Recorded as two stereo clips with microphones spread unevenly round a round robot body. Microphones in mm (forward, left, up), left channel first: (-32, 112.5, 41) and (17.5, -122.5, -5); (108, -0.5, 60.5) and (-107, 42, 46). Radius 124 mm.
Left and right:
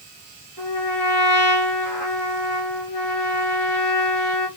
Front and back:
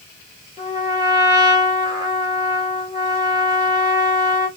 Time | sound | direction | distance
0.6 | a trumpet | 95° left | 1.9 m